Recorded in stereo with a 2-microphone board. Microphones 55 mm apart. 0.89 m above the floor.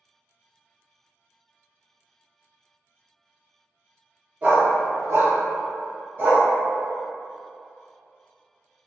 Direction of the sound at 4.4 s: 30° right (ahead or behind).